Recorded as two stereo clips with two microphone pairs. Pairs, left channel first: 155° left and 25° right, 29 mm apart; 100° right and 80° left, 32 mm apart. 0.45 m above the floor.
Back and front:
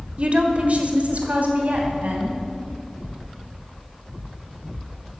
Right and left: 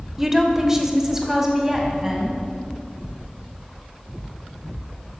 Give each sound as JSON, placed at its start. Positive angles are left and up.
{"t": 0.2, "sound": "a woman speaking", "azimuth_deg": 5, "distance_m": 1.7}